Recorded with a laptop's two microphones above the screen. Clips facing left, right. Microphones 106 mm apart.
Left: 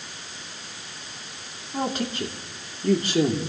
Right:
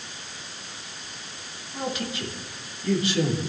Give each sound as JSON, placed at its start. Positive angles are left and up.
{"t": 1.7, "sound": "a man speaking", "side_deg": 45, "distance_m": 3.0}